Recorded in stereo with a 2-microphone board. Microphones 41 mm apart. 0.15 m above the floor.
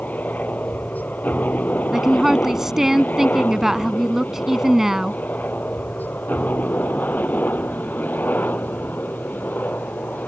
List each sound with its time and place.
0.0 s a helicopter: 45° left (ahead or behind); by 10.3 s 50° left (ahead or behind)
1.9 s a woman speaking: 10° right (ahead or behind)